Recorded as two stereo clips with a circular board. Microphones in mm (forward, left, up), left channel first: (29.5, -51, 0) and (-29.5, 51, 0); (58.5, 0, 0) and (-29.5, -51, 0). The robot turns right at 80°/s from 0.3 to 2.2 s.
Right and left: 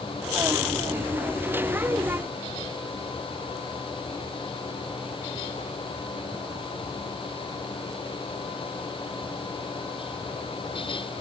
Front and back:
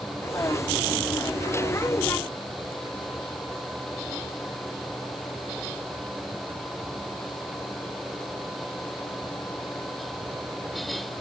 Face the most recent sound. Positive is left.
No sound to turn to.